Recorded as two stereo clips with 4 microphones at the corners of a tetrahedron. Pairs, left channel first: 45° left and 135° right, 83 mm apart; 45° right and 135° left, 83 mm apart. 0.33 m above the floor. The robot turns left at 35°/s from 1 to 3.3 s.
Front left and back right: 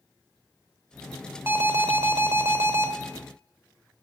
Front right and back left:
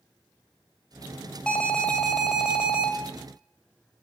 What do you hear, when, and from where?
1.5 s an alarm: 110° right, 1.2 m; by 2.9 s 160° right, 1.2 m